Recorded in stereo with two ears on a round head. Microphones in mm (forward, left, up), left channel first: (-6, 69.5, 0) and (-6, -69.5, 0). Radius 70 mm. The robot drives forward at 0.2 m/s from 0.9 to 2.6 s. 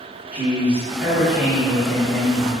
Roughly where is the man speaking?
Centre.